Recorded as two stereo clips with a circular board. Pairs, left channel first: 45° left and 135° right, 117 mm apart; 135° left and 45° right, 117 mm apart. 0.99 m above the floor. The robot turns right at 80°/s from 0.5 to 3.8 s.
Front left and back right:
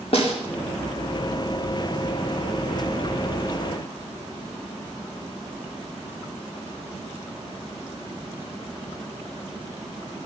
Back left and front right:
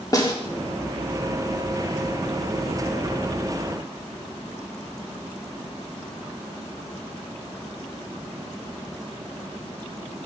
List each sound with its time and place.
0.1 s a snare drum: 75° left, 2.5 m